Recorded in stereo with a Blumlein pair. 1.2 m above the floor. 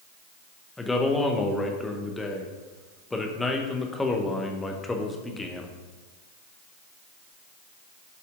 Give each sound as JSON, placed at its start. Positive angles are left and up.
{"t": 0.8, "sound": "a man speaking", "azimuth_deg": 10, "distance_m": 1.1}